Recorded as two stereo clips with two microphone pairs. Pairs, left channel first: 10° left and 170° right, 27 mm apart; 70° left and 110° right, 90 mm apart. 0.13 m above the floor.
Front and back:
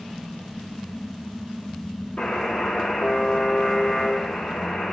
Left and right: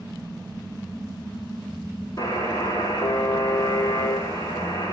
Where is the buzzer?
25° left, 4.5 m.